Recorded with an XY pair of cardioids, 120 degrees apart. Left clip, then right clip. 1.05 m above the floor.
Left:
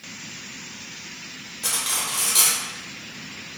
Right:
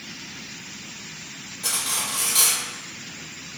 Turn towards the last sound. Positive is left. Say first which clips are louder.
# even
turn(degrees=20)